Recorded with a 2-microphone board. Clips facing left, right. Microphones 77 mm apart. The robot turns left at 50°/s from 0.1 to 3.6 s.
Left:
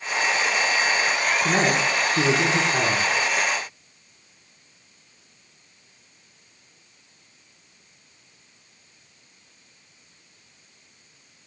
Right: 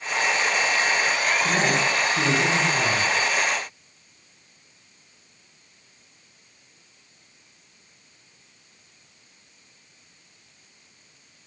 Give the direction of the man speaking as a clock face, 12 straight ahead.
8 o'clock.